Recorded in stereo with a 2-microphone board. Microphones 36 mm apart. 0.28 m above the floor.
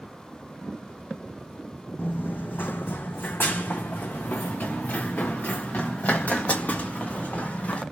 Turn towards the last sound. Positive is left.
turn(degrees=45)  # may be behind; listen again after turning